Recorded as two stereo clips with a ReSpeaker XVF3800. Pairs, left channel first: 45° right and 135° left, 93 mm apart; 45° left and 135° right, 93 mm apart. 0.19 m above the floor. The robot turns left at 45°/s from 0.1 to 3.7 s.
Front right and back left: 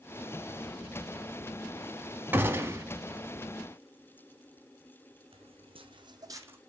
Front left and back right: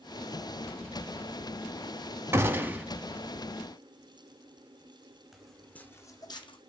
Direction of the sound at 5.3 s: 135° left.